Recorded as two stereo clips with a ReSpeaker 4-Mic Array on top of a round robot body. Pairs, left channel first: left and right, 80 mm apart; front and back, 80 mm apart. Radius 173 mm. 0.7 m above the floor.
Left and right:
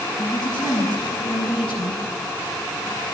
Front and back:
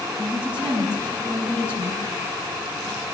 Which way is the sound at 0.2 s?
65° left.